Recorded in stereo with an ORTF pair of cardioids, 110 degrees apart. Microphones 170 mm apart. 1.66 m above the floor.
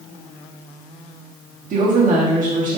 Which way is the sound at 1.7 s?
55° right.